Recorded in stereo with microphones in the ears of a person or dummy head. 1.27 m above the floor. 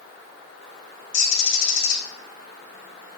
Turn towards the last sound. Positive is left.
turn(degrees=55)  # may be behind; listen again after turning